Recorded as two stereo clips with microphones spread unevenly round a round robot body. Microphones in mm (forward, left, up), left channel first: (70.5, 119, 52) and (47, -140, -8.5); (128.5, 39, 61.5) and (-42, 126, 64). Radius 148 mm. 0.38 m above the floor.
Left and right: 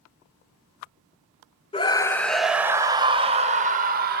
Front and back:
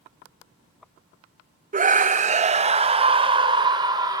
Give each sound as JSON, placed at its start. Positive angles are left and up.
{"t": 1.7, "sound": "a scream", "azimuth_deg": 160, "distance_m": 1.3}